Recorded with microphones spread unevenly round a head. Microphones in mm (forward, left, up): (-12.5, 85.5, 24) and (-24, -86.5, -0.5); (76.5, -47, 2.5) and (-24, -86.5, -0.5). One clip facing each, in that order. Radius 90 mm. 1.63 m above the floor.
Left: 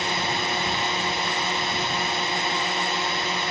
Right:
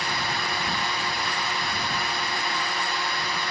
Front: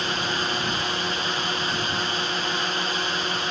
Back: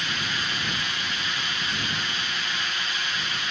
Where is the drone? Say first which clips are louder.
Left 3 dB, front 5 dB; 25° left.